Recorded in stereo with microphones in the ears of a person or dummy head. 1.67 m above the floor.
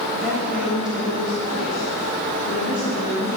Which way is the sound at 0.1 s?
5° right (ahead or behind).